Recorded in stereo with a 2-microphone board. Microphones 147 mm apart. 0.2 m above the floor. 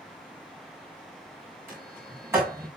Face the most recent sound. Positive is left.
turn(degrees=-20)  # may be behind; listen again after turning